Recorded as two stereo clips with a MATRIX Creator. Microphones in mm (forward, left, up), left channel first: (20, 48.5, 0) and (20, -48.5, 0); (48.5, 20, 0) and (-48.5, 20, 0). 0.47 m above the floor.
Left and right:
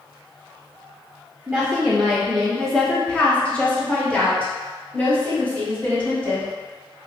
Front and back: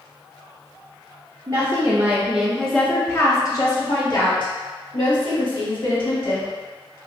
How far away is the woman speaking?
About 0.9 m.